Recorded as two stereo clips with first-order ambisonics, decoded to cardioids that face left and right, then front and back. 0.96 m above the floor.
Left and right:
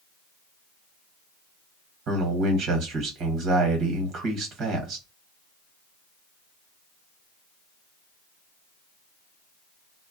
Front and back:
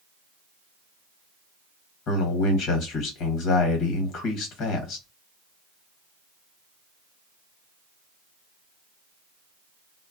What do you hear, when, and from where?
2.1 s a man speaking: 45° right, 1.1 m